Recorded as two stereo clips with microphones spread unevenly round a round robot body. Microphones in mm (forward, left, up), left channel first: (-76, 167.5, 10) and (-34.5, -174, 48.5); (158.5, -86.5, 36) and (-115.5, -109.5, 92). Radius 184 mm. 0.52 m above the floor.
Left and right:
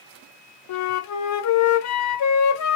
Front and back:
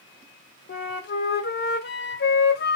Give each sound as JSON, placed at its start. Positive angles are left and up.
{"t": 0.7, "sound": "a flute", "azimuth_deg": 55, "distance_m": 0.6}